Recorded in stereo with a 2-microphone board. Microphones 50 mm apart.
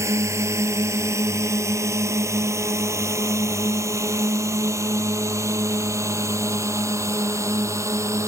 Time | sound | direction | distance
0.0 | a drone | 75° right (ahead or behind) | ?